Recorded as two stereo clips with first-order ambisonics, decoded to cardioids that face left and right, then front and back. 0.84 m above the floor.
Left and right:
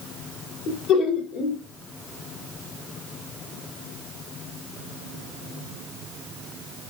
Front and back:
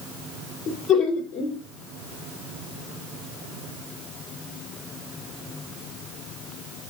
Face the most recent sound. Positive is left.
turn(degrees=60)